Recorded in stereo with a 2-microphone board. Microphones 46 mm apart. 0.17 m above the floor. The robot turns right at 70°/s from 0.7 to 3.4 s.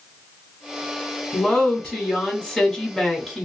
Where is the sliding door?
No sliding door in this recording.